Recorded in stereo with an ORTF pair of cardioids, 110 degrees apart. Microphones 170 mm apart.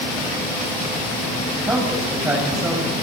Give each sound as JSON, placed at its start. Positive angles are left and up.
{"t": 1.6, "sound": "a man speaking", "azimuth_deg": -15, "distance_m": 5.5}